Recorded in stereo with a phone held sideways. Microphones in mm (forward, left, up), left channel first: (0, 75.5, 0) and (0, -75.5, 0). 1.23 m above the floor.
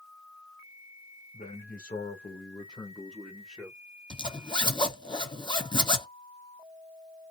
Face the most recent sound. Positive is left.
turn(degrees=30)  # may be behind; listen again after turning